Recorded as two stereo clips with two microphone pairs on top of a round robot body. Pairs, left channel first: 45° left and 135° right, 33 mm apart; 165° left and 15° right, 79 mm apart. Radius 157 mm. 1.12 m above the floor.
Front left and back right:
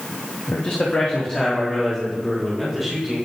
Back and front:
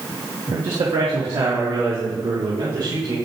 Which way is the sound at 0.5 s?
15° left.